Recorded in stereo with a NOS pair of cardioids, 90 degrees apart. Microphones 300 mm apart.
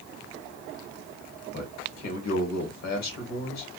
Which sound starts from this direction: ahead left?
A man speaking, at 1.5 s.